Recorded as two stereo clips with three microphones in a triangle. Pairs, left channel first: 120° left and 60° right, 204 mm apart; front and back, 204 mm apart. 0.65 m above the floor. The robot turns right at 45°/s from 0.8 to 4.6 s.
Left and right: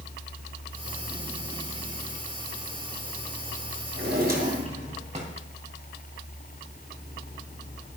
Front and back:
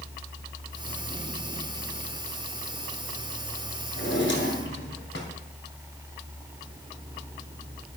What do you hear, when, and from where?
4.0 s a drawer: 30° right, 2.5 m; by 5.3 s 5° right, 2.5 m